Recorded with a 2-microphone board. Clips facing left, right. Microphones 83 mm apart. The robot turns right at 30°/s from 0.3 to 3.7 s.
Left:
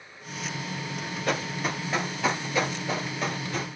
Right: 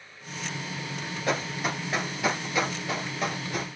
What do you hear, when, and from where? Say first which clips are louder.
1.3 s running footsteps: even; 25° right (ahead or behind), 1.5 m; by 3.7 s 15° right (ahead or behind), 1.5 m